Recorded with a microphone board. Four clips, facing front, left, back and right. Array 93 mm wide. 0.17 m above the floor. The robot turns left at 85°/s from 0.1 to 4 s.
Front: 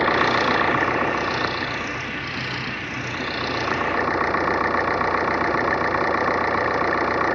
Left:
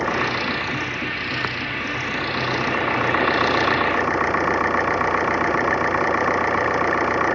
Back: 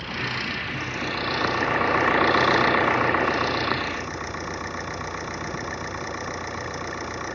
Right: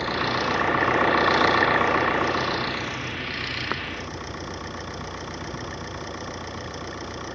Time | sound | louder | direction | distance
0.0 | an engine running | left 3 dB, front 12 dB | 20° left | ?